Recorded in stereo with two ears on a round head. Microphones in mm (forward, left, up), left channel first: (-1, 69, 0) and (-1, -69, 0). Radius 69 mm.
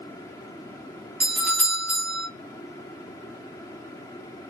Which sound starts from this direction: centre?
A doorbell, at 1.2 s.